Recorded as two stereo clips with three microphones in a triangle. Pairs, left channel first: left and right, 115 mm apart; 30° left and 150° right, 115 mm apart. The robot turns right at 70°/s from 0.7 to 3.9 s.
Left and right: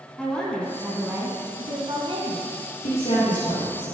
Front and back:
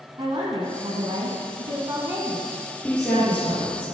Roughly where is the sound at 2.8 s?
Left.